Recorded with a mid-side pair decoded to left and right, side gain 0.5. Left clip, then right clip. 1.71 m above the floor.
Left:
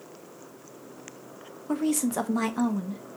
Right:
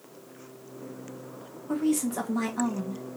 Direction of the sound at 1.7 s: 35° left.